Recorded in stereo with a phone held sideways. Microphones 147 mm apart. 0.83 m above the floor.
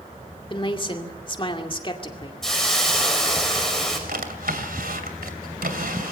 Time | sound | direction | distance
0.5 | a woman speaking | 35° left (ahead or behind) | 2.5 m
2.4 | a hiss | 5° left (ahead or behind) | 5 m
4.1 | a drawer | 80° right | 2.5 m